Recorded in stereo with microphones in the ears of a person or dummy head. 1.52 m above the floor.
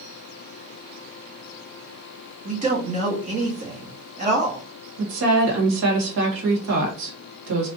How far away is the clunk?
I don't hear a clunk.